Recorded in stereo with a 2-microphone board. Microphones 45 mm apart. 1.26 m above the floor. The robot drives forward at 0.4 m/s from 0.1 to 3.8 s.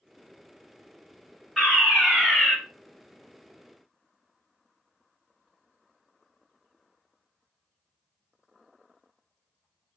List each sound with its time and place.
1.6 s a fire alarm: 10° right (ahead or behind), 3 m; by 2.5 s 5° right (ahead or behind), 3.5 m